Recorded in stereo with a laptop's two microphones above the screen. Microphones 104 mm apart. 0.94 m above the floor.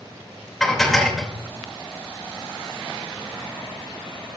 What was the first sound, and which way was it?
Dishes clattering, centre (ahead or behind).